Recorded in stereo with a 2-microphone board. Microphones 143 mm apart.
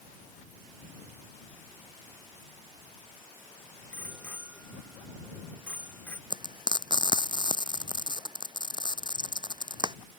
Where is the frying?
30° right (ahead or behind).